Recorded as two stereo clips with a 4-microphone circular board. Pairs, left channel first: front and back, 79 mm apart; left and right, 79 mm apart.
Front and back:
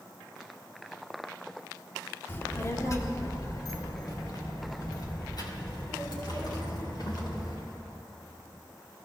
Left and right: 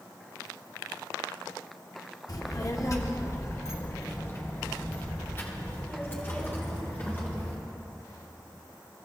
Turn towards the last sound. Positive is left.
turn(degrees=25)